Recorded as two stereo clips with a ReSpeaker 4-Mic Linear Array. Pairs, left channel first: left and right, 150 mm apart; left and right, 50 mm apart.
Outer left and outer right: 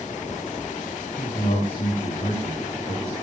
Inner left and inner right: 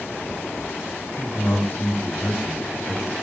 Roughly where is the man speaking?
Left.